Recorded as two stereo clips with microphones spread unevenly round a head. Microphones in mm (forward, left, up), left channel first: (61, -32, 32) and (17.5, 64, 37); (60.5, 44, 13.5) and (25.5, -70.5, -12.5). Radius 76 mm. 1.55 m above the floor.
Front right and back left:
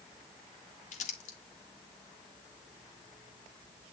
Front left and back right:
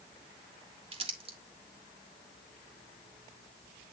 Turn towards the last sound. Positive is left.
turn(degrees=-65)